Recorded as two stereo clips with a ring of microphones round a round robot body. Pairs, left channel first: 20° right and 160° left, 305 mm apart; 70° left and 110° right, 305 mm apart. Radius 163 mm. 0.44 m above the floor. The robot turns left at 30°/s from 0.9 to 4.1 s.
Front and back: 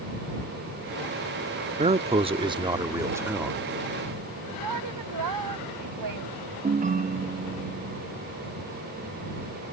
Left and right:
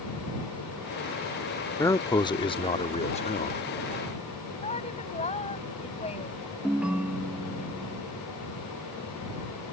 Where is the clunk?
I don't hear a clunk.